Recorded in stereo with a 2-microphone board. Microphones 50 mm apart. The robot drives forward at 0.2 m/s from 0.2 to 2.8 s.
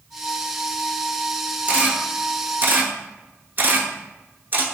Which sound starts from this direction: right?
A camera shutter, at 1.7 s.